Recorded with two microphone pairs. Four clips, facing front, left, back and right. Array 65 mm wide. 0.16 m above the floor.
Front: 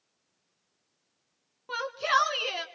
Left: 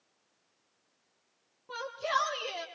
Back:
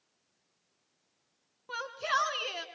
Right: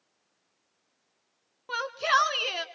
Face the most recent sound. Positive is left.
turn(degrees=-65)